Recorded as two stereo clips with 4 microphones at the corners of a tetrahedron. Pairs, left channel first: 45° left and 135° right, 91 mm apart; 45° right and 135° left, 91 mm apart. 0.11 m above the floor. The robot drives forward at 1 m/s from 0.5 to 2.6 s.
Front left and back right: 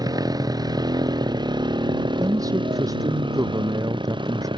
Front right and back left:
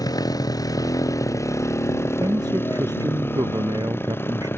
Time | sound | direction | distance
0.0 | a motorcycle | 95° right | ?
2.2 | a man speaking | straight behind | ?